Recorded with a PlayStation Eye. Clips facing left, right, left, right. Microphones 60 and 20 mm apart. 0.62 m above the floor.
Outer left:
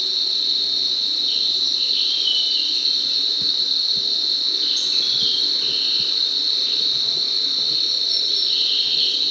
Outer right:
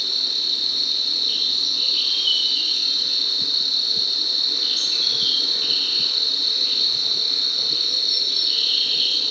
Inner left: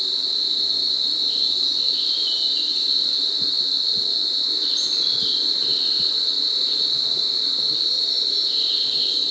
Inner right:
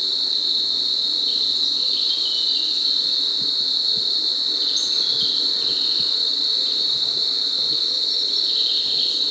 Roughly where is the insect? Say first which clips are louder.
Outer left 1 dB, inner right 1 dB; right.